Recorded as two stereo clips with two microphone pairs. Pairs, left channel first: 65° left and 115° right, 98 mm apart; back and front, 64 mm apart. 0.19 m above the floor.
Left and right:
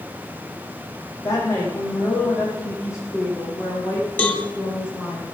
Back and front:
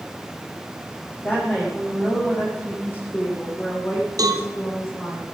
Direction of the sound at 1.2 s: 115° left.